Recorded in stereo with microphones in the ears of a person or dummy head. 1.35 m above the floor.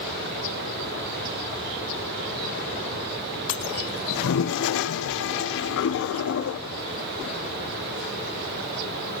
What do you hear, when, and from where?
4.1 s a toilet flushing: 65° left (ahead or behind), 0.5 m